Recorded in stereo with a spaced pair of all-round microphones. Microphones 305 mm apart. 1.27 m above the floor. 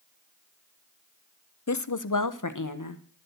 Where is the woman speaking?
55° left (ahead or behind), 0.7 m; by 3.0 s 70° left (ahead or behind), 1.6 m.